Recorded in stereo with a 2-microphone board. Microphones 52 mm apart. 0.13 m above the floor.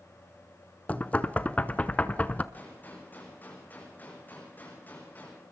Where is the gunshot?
35° left (ahead or behind), 7 m.